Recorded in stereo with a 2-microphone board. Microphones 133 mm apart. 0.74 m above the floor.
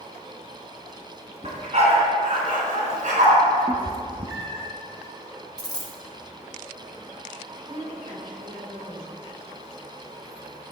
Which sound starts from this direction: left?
A dropped coin, at 5.6 s.